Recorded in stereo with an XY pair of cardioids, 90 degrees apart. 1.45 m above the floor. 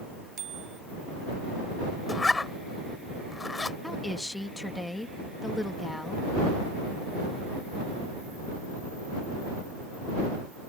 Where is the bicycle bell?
60° right.